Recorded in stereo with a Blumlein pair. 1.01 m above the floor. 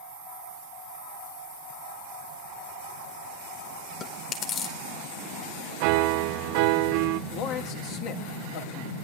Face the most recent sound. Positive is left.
turn(degrees=40)